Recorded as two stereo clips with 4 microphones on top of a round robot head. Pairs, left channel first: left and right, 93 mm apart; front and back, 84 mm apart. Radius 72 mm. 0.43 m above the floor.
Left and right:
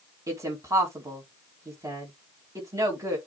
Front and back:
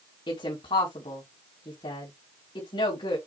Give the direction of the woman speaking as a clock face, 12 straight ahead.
1 o'clock.